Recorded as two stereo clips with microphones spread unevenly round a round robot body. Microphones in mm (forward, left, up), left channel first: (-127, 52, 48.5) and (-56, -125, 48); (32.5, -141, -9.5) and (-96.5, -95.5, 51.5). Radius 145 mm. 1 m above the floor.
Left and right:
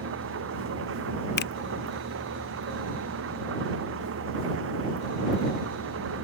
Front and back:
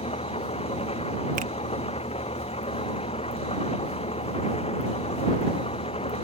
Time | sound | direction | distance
0.0 | an engine running | 65° right | ?
1.4 | a finger snap | 100° left | ?